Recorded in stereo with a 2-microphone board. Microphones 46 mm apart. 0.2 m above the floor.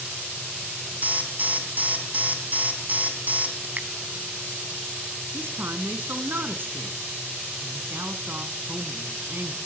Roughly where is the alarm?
Right.